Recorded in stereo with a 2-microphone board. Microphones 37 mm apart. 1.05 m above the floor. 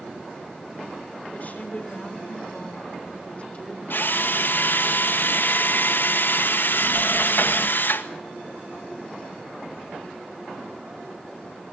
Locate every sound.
1.3 s a woman speaking: 45° left (ahead or behind), 5 m; by 3.8 s 30° left (ahead or behind), 5 m
3.9 s a drill: 60° left (ahead or behind), 1.4 m